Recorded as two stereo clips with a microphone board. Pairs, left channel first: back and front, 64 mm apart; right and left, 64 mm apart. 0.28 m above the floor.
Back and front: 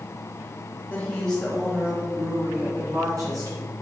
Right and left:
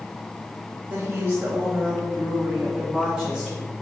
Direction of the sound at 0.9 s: 130° left.